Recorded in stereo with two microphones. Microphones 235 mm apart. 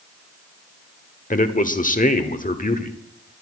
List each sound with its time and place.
1.3 s a man speaking: 35° left (ahead or behind), 1.3 m